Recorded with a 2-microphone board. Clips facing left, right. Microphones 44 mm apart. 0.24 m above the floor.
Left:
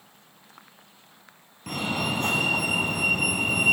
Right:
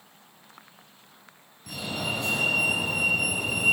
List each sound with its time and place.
1.7 s a fire alarm: 55° left (ahead or behind), 3.5 m